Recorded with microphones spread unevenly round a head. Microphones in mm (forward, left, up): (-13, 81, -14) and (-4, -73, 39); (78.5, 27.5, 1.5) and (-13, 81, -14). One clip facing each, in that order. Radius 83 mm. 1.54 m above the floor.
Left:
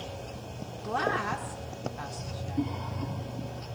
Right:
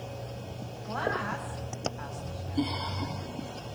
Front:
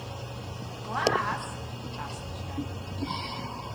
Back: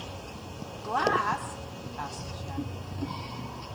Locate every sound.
0.8 s a woman speaking: 90° left, 2.5 m